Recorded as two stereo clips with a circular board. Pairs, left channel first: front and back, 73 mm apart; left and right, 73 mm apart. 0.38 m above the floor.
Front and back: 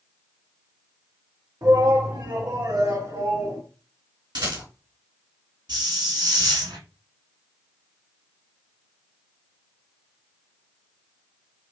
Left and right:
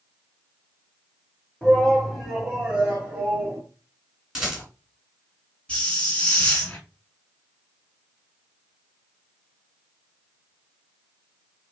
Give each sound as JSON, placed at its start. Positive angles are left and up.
{"t": 1.6, "sound": "a shout", "azimuth_deg": 165, "distance_m": 2.0}
{"t": 4.3, "sound": "a rattle", "azimuth_deg": -170, "distance_m": 2.5}
{"t": 5.7, "sound": "a hiss", "azimuth_deg": 165, "distance_m": 1.4}